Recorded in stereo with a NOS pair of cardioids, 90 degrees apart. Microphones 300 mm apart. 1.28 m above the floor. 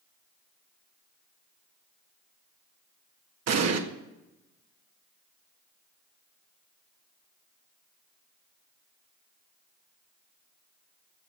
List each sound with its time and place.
3.5 s an explosion: 55° right, 1.7 m